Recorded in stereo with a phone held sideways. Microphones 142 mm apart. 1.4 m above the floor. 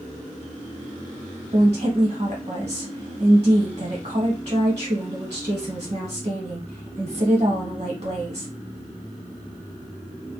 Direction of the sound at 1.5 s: 55° right (ahead or behind).